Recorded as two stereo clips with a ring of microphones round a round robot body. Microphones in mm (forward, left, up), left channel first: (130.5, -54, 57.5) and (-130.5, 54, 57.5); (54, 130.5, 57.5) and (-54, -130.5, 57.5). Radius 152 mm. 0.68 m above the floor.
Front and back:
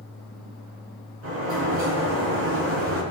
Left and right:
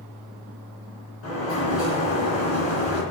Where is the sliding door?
110° left, 4.5 m.